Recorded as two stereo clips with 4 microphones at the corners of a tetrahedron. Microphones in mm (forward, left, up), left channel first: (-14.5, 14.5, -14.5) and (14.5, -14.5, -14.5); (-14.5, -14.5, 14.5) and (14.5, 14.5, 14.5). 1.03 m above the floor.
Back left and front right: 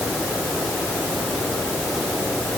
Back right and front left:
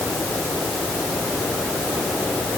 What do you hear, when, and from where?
Only background noise.